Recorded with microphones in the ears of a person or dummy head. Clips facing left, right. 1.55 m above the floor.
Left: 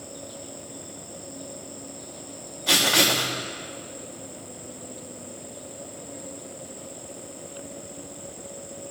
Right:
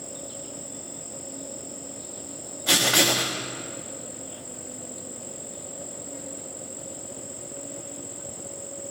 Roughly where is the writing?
Centre.